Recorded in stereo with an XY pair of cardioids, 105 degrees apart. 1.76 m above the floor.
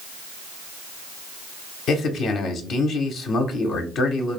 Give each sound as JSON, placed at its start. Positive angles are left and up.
{"t": 1.9, "sound": "a man speaking", "azimuth_deg": 70, "distance_m": 0.6}